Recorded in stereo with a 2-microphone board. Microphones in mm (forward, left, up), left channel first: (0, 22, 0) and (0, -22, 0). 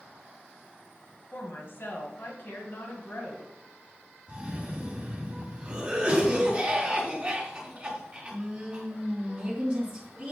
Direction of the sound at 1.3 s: 50° left (ahead or behind).